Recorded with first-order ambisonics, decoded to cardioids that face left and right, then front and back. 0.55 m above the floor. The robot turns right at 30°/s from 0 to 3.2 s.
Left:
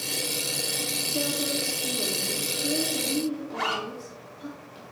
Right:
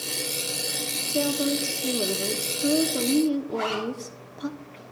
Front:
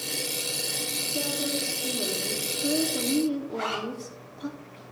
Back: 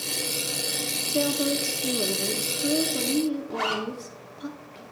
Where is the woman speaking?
155° right, 0.7 m; by 4.5 s 90° right, 0.7 m.